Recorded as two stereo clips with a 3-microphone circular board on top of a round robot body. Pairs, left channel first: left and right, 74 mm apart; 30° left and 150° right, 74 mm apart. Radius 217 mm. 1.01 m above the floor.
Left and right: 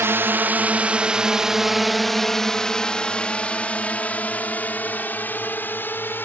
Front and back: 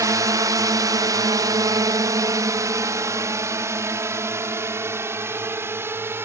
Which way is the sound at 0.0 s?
135° right.